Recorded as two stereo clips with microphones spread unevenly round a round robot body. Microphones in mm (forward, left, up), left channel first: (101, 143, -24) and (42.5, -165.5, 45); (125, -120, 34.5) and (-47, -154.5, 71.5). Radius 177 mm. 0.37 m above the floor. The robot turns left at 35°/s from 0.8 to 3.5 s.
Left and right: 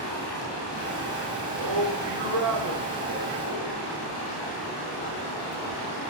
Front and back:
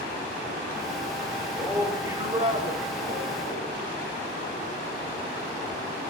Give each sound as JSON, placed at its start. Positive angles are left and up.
{"t": 1.6, "sound": "a man speaking", "azimuth_deg": -80, "distance_m": 8.0}